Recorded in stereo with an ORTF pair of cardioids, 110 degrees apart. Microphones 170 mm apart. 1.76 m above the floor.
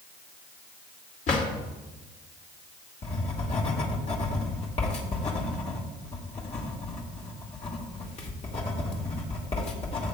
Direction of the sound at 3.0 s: 40° left.